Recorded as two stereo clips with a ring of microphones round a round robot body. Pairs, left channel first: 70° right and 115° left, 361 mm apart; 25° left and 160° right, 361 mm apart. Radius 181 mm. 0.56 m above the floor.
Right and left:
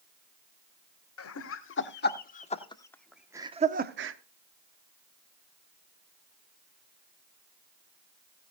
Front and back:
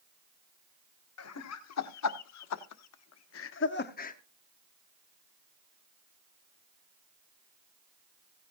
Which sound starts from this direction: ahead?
Laughter, at 1.2 s.